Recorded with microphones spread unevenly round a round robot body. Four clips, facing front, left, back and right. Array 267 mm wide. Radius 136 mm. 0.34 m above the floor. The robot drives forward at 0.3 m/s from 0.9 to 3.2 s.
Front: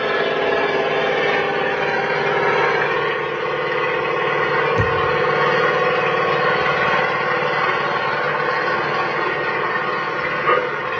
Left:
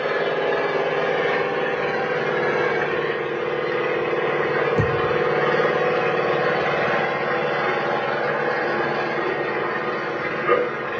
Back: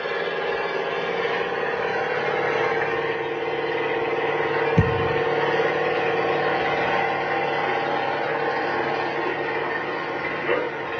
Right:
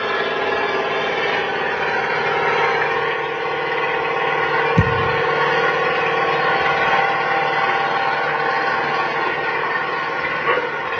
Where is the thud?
120° right, 0.8 m.